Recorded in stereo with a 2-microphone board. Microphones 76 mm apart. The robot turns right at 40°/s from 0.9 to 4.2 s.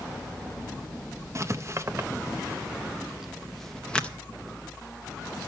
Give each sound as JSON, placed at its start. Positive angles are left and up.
{"t": 1.4, "sound": "writing", "side_deg": -40, "distance_m": 0.6}